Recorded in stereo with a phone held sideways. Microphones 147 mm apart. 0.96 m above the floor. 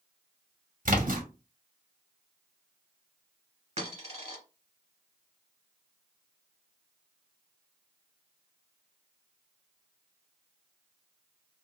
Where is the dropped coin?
45° right (ahead or behind), 1.4 m.